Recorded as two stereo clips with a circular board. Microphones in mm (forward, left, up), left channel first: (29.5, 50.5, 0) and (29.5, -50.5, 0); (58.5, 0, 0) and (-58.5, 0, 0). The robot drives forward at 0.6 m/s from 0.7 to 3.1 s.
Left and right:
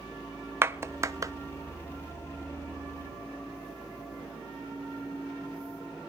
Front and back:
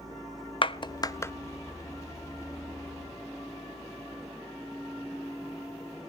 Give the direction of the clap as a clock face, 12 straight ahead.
1 o'clock.